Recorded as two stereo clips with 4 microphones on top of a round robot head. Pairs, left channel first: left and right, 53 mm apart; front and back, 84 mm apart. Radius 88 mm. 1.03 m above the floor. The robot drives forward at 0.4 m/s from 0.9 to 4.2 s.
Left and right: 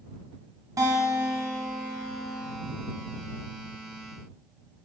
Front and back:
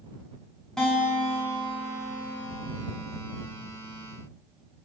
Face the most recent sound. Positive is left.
turn(degrees=-125)